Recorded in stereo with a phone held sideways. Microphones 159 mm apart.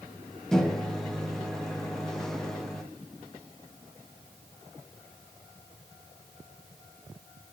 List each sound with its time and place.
0.5 s a microwave: 5° left (ahead or behind), 0.9 m